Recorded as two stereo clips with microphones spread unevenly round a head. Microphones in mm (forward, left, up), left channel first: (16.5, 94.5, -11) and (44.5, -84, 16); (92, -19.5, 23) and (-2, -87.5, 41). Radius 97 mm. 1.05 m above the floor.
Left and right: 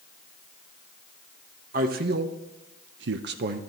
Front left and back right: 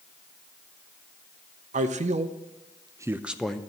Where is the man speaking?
130° right, 0.9 m; by 3.6 s 40° right, 0.6 m.